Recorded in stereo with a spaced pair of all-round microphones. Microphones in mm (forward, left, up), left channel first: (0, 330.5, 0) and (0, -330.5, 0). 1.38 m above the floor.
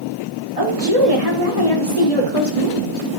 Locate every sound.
0.6 s a woman speaking: 60° right (ahead or behind), 4 m